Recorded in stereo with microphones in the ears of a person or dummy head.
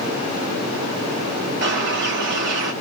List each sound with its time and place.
1.6 s a bird: 55° right (ahead or behind), 0.9 m